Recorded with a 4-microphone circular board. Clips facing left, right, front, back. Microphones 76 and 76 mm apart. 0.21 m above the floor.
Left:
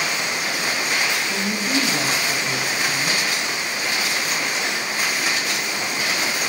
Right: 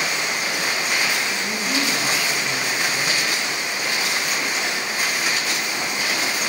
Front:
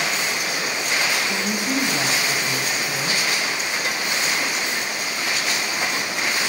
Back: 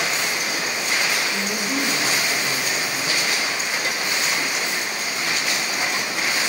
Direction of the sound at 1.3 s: 20° left.